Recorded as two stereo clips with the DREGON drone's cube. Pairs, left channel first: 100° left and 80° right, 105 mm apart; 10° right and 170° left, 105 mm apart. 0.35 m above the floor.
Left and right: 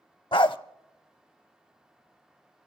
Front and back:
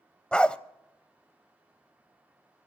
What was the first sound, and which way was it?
A dog barking, 70° left.